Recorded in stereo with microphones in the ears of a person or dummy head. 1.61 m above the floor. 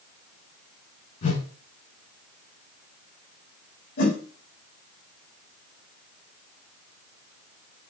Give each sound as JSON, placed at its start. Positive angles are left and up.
{"t": 1.2, "sound": "a whoosh", "side_deg": 45, "distance_m": 2.0}
{"t": 4.0, "sound": "a whoosh", "side_deg": 65, "distance_m": 3.0}